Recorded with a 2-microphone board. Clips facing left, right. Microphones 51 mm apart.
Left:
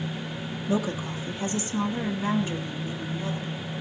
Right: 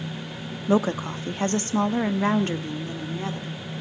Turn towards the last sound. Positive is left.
turn(degrees=-60)  # may be behind; listen again after turning